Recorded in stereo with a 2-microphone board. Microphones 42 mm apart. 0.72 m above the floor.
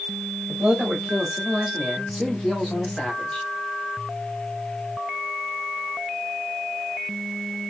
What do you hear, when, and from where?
0.5 s a man speaking: 30° right (ahead or behind), 1.7 m; by 3.5 s 20° left (ahead or behind), 1.9 m